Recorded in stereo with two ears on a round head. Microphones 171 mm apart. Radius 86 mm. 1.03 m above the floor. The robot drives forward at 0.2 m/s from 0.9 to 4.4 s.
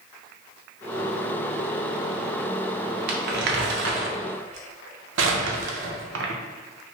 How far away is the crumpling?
About 0.6 m.